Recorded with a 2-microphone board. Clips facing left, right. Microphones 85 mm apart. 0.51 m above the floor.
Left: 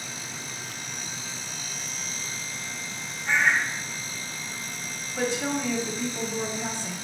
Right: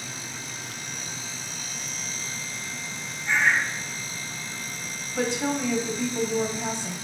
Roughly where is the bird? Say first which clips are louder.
Even; left.